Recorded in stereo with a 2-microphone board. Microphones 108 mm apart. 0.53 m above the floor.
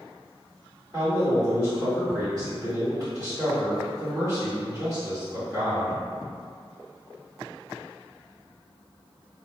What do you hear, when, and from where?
0.9 s a man speaking: 35° right (ahead or behind), 1.7 m